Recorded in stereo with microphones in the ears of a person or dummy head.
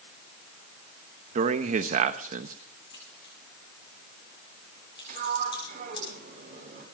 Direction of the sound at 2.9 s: 25° left (ahead or behind).